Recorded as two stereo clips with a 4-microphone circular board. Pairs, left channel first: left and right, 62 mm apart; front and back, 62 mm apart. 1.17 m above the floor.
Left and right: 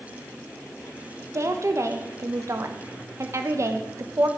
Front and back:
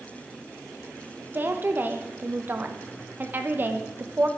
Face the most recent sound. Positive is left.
turn(degrees=-125)